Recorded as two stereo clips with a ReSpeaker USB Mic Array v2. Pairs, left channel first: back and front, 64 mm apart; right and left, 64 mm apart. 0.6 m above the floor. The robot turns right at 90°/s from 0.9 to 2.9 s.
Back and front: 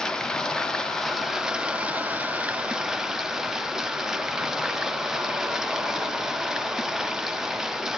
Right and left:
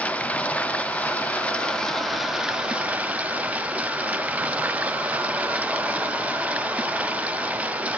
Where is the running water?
110° right, 1.0 m; by 8.0 s 70° left, 1.0 m.